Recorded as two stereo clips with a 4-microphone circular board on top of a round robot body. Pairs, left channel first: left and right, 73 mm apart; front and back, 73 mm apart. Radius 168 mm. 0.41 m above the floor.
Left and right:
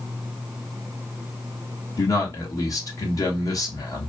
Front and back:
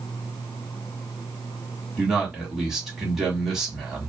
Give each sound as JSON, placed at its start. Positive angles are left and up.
{"t": 2.0, "sound": "a man speaking", "azimuth_deg": 100, "distance_m": 1.7}